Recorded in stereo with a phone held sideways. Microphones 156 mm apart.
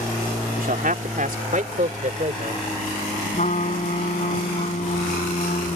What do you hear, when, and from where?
0.6 s a man speaking: 65° right (ahead or behind); by 2.7 s 50° right (ahead or behind)
3.3 s a trumpet: 50° left (ahead or behind)